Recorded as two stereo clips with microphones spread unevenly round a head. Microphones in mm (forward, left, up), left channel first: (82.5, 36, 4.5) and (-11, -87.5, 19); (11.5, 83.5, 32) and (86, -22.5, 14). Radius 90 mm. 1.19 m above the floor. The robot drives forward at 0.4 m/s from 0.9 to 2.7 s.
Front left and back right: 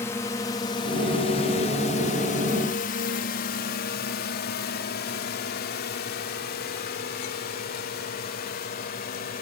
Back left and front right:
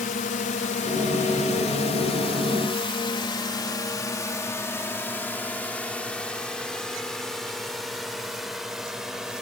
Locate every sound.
0.0 s a drone: 125° left; by 9.4 s 30° left